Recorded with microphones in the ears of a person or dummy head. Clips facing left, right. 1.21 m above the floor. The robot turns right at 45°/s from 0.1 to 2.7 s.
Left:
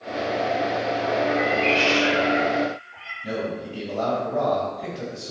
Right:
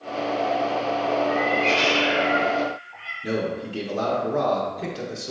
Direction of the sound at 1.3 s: 105° left.